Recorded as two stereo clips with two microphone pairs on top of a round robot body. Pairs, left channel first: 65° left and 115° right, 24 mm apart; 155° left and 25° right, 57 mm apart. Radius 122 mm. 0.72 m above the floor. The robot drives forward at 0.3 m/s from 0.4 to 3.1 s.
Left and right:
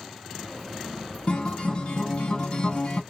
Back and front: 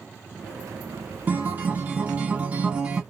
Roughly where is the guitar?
Ahead left.